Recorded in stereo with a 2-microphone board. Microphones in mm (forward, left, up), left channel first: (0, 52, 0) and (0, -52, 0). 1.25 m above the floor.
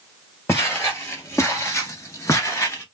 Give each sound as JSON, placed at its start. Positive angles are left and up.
{"t": 0.5, "sound": "footsteps", "side_deg": 25, "distance_m": 1.8}